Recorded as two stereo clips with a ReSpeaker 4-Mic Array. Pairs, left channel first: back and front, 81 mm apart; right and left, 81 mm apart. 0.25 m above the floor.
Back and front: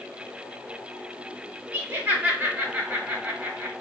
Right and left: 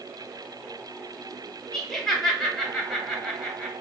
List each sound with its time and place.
1.7 s laughter: 10° right, 1.0 m